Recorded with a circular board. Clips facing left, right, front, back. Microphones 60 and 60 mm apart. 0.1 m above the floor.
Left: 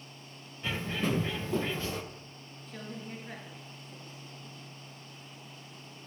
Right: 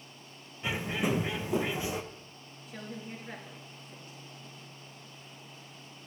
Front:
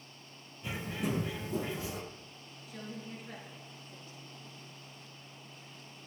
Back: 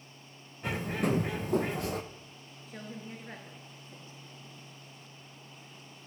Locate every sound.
0.6 s a bird: 165° right, 0.7 m
2.7 s a woman speaking: 170° right, 1.5 m